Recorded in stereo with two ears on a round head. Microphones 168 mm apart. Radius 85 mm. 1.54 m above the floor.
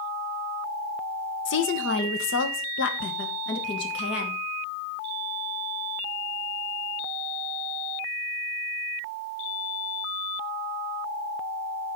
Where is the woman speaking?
70° left (ahead or behind), 1.0 m; by 4.4 s 60° left (ahead or behind), 2 m.